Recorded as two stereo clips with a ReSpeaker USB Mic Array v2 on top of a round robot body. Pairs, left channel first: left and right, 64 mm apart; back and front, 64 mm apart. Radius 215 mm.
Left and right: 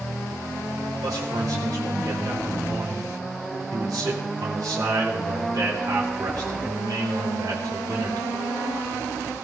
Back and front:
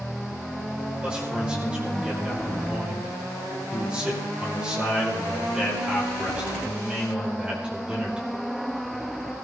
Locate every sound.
1.0 s a man speaking: 75° right, 3.5 m